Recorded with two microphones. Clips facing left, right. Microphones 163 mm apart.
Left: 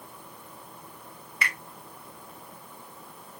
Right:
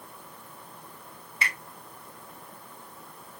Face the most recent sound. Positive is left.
turn(degrees=-30)  # may be behind; listen again after turning